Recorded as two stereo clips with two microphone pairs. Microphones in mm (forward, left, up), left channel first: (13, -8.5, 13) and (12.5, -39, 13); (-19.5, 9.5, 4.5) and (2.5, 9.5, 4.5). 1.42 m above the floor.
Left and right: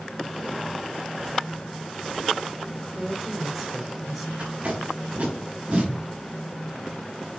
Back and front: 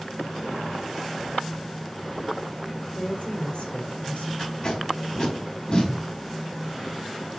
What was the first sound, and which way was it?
A woman speaking, straight behind.